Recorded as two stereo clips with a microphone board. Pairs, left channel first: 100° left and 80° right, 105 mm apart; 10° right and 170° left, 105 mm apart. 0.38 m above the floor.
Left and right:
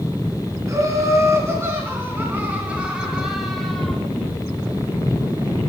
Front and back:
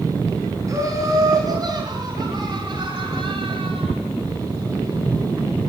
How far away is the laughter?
About 4 m.